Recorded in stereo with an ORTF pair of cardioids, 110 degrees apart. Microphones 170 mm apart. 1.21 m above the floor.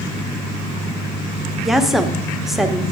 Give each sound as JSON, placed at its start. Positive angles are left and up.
{"t": 1.6, "sound": "a woman speaking", "azimuth_deg": 0, "distance_m": 0.8}